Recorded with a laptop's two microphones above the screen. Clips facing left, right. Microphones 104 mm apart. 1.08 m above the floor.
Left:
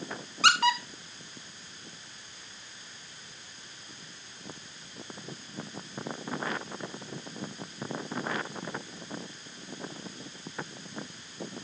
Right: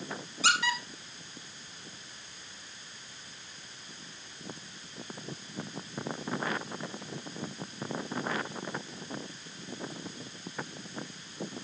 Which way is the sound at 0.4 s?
65° left (ahead or behind).